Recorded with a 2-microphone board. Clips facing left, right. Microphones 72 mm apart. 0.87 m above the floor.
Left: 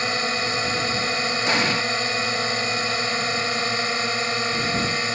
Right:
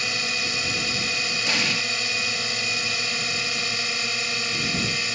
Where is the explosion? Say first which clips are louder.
Left 5 dB; 40° left (ahead or behind).